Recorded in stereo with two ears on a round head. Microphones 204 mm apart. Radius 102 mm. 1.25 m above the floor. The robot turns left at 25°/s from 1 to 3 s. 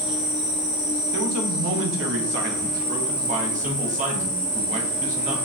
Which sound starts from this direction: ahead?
An insect, at 0.0 s.